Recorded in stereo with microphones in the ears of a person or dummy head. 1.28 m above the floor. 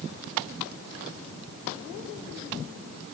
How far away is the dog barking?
No dog barking in this recording.